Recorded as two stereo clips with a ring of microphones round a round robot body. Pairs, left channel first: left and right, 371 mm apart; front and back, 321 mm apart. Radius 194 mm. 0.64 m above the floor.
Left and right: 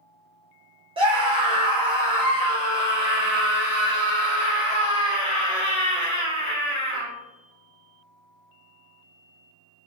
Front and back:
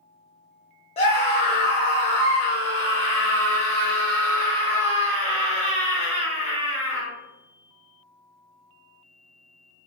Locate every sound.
1.0 s a scream: 35° right, 0.8 m